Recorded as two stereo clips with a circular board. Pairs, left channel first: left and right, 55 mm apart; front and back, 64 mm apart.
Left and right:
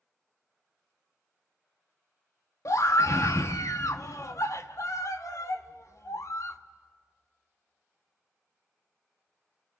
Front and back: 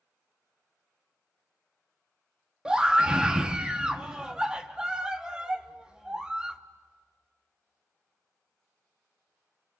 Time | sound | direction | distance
2.6 | a scream | 105° left | 1.4 m